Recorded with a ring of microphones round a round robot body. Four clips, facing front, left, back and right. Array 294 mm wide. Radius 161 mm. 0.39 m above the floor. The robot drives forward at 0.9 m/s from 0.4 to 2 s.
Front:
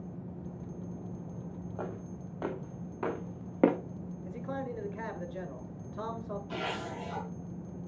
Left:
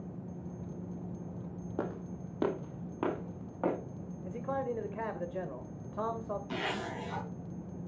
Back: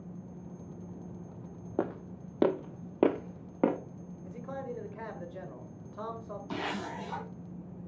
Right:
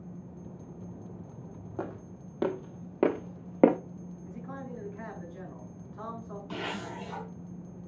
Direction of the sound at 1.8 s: 170° left.